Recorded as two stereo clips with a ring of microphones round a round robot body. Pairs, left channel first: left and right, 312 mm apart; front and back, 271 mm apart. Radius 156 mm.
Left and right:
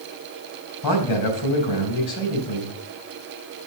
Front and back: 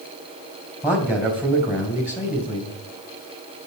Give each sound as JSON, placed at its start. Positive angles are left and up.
{"t": 0.8, "sound": "a man speaking", "azimuth_deg": 95, "distance_m": 3.0}